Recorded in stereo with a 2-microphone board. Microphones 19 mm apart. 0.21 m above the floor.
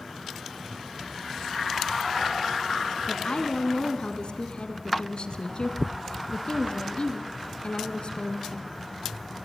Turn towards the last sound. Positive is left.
turn(degrees=50)  # may be behind; listen again after turning